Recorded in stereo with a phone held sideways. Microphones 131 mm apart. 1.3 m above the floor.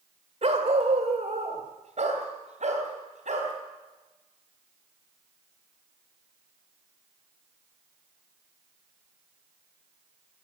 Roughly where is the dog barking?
Right.